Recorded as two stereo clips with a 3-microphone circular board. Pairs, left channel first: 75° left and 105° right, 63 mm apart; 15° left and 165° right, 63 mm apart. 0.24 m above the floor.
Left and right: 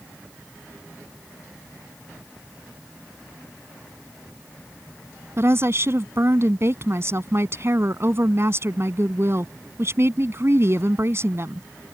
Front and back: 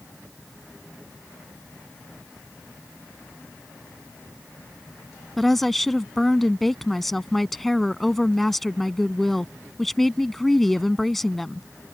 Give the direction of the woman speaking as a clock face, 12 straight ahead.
2 o'clock.